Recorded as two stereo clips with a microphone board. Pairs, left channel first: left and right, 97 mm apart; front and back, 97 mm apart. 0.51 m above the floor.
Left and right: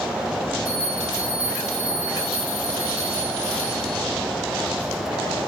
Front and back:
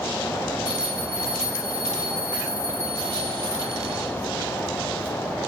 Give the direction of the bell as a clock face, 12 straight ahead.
6 o'clock.